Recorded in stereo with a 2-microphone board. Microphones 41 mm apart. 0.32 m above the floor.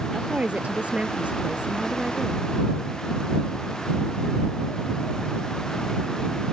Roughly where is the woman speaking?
Right.